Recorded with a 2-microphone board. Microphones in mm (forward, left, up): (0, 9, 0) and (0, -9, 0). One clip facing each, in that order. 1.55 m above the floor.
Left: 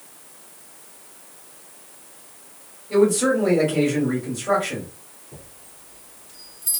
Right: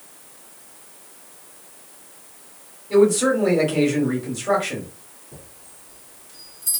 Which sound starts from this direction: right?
A man speaking, at 2.9 s.